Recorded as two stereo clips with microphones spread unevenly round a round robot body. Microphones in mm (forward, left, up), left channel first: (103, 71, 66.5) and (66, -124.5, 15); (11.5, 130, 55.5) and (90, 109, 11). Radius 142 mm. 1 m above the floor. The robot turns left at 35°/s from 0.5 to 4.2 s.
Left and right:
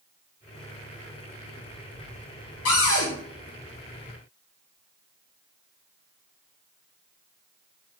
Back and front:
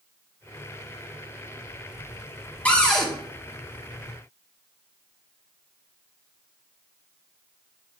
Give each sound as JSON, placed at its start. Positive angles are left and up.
{"t": 2.6, "sound": "a cupboard door", "azimuth_deg": 95, "distance_m": 1.2}